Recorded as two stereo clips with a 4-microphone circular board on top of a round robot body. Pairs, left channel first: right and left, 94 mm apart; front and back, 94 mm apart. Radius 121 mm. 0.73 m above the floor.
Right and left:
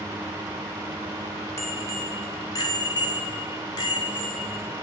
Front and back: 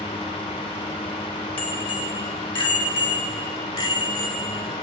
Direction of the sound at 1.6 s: 30° right.